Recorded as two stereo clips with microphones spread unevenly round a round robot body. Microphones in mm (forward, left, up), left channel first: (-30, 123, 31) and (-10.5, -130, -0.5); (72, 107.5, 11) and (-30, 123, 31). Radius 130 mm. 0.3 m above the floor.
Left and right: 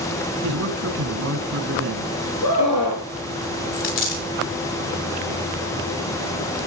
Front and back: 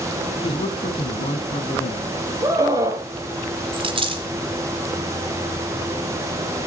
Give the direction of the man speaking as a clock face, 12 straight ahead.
2 o'clock.